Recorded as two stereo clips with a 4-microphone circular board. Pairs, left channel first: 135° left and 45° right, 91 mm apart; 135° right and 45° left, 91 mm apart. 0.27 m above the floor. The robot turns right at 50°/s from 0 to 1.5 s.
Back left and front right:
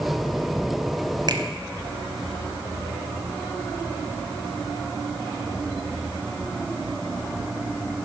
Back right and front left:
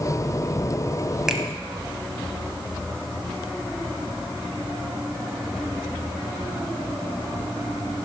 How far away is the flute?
I don't hear a flute.